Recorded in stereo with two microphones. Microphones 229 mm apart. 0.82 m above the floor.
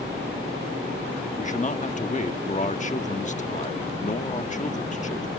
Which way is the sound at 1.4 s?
35° left (ahead or behind).